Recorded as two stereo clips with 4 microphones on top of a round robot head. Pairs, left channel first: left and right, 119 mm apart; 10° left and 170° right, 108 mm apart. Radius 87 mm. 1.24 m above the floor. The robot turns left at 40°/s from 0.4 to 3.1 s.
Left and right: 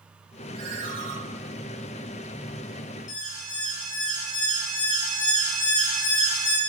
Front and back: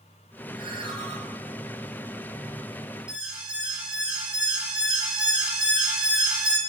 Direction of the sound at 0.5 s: 80° right.